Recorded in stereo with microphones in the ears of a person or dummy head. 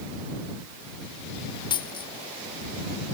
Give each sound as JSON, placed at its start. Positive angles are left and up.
{"t": 1.7, "sound": "a dropped coin", "side_deg": 25}